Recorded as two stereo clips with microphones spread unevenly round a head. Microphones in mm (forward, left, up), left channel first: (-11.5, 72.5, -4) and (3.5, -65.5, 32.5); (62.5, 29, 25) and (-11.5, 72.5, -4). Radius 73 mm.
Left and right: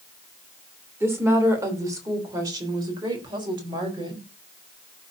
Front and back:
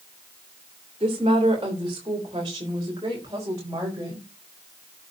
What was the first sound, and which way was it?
A woman speaking, 155° right.